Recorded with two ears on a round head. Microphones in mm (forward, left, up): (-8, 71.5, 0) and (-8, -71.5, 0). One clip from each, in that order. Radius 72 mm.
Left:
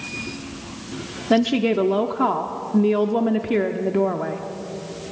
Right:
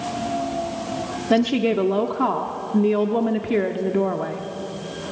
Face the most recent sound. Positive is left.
turn(degrees=5)  # may be behind; listen again after turning